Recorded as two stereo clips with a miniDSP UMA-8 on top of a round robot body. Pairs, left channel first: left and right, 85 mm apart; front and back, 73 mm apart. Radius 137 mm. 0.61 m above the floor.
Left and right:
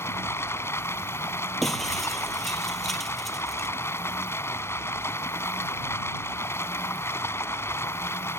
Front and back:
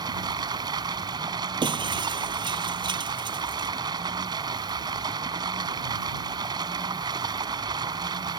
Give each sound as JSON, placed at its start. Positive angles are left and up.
{"t": 0.0, "sound": "running water", "azimuth_deg": 150}
{"t": 1.6, "sound": "breaking glass", "azimuth_deg": 180}